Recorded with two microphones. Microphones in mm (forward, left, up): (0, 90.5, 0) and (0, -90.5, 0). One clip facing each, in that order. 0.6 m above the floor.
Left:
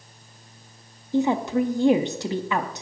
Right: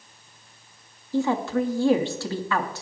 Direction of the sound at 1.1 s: 20° left (ahead or behind).